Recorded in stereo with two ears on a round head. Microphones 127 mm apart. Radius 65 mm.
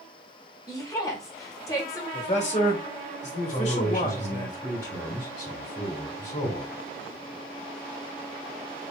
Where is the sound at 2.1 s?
50° left (ahead or behind), 1.8 m.